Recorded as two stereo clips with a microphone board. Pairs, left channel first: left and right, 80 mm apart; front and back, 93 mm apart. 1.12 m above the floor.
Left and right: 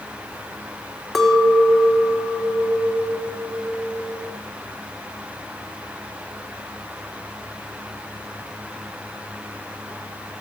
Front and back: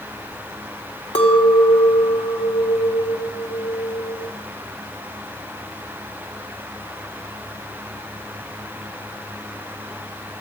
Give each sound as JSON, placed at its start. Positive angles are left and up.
{"t": 1.1, "sound": "a clink", "azimuth_deg": 0, "distance_m": 1.6}